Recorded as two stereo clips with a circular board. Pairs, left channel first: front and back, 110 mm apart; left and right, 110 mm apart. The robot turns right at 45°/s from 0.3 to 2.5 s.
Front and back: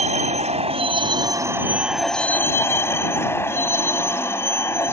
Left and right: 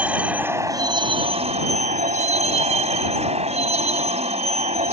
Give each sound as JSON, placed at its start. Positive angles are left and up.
{"t": 0.0, "sound": "a vehicle", "azimuth_deg": -170}